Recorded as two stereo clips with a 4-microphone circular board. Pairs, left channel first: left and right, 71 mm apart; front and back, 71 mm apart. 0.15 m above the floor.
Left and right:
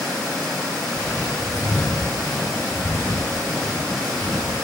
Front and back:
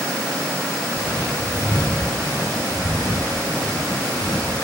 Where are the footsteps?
30° left, 5.5 m; by 4.5 s 15° left, 7.5 m.